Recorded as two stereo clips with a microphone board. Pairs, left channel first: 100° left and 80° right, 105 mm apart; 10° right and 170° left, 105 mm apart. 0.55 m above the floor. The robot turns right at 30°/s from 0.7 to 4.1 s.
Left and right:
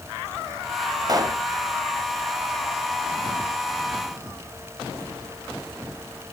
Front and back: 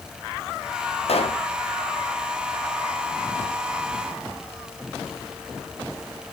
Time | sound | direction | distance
1.1 | a pop | 25° right | 1.3 m